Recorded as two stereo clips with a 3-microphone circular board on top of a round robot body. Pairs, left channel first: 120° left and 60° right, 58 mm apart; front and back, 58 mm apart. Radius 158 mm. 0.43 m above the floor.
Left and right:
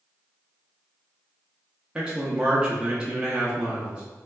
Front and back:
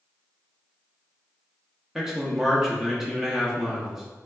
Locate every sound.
1.9 s a man speaking: 110° right, 0.7 m